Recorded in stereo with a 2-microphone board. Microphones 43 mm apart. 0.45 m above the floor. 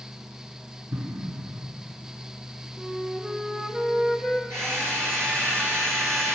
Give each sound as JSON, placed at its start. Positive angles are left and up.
{"t": 0.9, "sound": "an explosion", "side_deg": -70, "distance_m": 2.0}
{"t": 2.8, "sound": "a flute", "side_deg": -15, "distance_m": 1.6}
{"t": 4.5, "sound": "a drill", "side_deg": -80, "distance_m": 7.0}